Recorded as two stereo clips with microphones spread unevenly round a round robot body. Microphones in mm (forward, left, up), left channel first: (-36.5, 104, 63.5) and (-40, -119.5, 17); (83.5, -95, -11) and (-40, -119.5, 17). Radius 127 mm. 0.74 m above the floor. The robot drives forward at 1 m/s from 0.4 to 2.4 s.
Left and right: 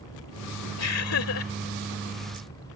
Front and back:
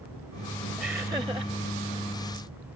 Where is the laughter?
105° left; by 1.5 s 120° left.